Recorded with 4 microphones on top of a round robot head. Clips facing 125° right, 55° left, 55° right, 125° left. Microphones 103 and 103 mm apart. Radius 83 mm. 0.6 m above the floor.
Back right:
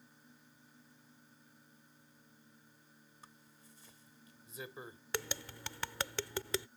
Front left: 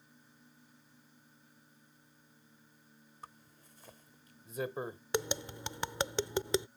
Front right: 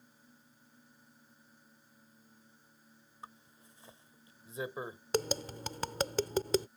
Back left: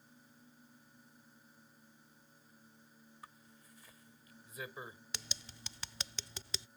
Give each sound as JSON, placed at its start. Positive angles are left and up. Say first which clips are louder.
{"t": 3.2, "sound": "a zipper", "louder": "front left 8 dB, front right 6 dB", "azimuth_deg": 10}
{"t": 5.1, "sound": "tapping", "louder": "front left 7 dB, front right 20 dB", "azimuth_deg": -15}